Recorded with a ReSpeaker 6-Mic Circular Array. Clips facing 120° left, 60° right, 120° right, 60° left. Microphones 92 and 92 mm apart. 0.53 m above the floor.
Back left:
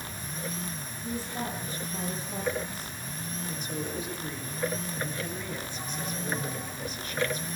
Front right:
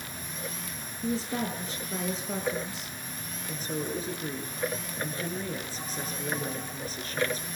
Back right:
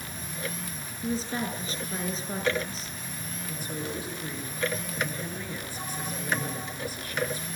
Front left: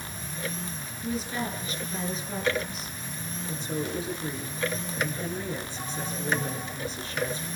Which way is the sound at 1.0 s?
60° right.